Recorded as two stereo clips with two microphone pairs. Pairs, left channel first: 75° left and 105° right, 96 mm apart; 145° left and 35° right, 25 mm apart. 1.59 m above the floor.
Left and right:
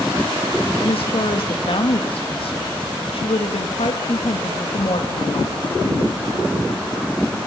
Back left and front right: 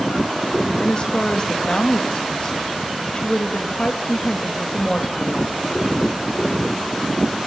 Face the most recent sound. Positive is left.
turn(degrees=90)